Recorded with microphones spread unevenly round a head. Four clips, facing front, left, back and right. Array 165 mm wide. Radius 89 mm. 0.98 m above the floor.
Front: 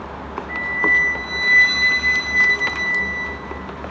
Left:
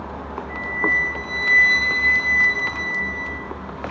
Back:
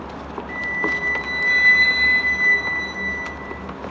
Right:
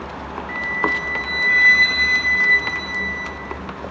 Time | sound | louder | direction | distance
0.5 | a flute | right 1 dB, front 5 dB | 95° right | 1.1 m